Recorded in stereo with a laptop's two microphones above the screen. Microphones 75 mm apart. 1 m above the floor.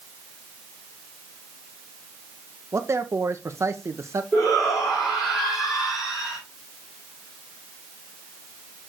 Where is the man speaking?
40° right (ahead or behind), 0.6 m.